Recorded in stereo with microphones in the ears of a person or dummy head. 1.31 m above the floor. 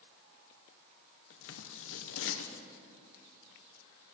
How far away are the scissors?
About 0.9 m.